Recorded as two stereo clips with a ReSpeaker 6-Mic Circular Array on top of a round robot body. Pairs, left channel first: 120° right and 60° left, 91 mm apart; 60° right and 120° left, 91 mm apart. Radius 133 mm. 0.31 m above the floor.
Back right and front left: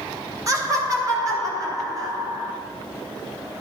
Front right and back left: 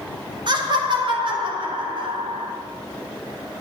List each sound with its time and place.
0.5 s laughter: 105° left, 2.5 m; by 2.5 s 110° left, 4 m